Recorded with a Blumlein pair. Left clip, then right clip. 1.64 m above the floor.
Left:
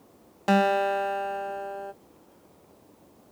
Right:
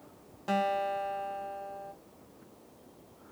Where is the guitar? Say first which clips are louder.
Left 7 dB; 30° left, 0.5 m.